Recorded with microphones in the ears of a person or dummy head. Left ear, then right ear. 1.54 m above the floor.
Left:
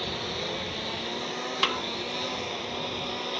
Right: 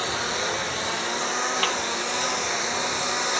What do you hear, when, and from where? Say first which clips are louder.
0.0 s a lawn mower: right 6 dB; 50° right (ahead or behind); by 3.4 s 55° right (ahead or behind)
1.6 s a snare drum: left 2 dB; 5° right (ahead or behind)